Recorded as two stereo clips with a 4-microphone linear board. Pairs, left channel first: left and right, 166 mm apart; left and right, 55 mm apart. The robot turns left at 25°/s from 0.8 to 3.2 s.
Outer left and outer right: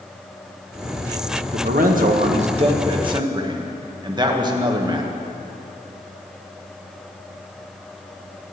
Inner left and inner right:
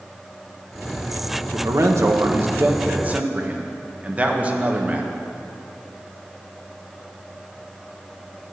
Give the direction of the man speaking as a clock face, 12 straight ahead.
4 o'clock.